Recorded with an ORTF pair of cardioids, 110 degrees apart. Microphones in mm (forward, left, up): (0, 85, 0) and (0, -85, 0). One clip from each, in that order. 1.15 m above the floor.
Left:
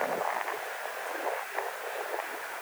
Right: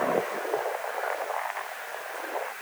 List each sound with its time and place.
Only background noise.